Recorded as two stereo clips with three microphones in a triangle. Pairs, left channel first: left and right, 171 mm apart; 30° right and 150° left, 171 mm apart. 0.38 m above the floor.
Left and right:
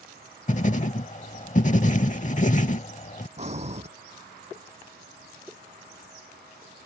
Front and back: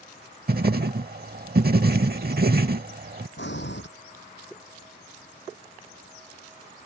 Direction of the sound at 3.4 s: 40° right.